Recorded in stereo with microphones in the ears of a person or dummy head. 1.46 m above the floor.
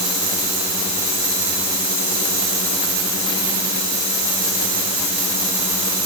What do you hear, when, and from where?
Only background noise.